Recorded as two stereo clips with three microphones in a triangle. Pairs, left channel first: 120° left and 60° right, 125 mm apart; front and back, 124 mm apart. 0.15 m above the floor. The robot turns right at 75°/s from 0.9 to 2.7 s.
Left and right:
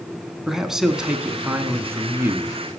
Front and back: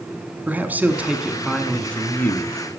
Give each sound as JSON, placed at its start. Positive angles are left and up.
{"t": 0.5, "sound": "a man speaking", "azimuth_deg": -140, "distance_m": 1.1}